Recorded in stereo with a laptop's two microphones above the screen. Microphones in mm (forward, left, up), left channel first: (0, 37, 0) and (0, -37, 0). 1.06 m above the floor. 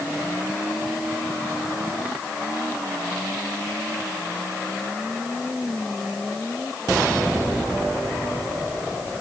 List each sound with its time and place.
Only background noise.